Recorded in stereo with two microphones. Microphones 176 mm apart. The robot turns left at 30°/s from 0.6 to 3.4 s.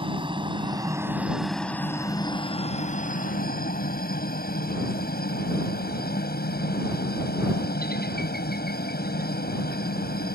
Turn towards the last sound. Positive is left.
turn(degrees=60)  # may be behind; listen again after turning